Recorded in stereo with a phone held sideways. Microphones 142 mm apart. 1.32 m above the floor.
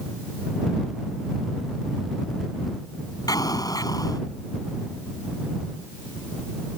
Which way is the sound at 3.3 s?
25° left (ahead or behind).